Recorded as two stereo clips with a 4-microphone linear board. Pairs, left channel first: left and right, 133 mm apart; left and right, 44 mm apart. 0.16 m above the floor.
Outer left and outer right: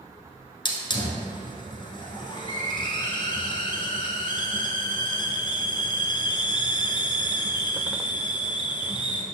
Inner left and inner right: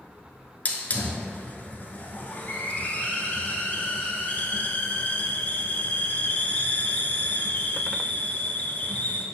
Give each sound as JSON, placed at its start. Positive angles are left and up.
{"t": 0.7, "sound": "a hiss", "side_deg": 35, "distance_m": 0.8}